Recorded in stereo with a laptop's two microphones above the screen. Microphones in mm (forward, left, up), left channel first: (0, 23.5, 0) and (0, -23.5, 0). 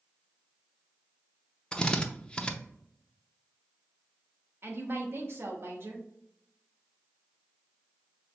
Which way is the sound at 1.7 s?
20° left (ahead or behind).